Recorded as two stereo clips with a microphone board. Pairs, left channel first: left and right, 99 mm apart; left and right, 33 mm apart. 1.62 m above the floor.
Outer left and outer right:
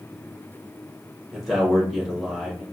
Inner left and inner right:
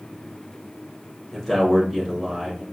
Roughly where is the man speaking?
Centre.